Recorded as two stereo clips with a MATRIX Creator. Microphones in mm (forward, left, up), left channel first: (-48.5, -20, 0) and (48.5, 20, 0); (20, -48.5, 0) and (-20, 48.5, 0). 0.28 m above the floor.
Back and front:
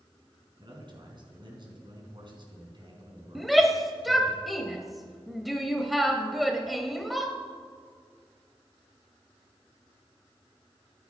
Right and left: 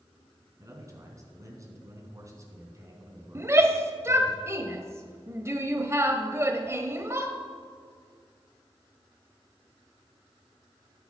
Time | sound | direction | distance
0.6 | a man speaking | 60° left | 3.5 m
3.4 | a shout | 110° left | 1.0 m